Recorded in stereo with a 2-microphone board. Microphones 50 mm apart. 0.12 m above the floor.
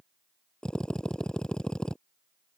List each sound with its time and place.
0.6 s a drill: 15° left (ahead or behind)